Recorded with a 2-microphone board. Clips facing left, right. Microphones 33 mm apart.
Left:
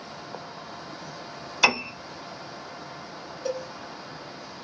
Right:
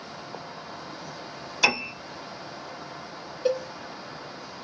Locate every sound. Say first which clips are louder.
1.6 s a piano: left 1 dB; 15° left (ahead or behind), 1.1 m
3.5 s a cowbell: right 5 dB; 40° right (ahead or behind), 0.5 m